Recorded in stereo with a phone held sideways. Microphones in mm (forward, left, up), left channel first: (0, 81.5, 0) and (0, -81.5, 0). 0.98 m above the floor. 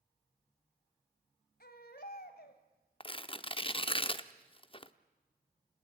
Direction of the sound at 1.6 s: 70° left (ahead or behind).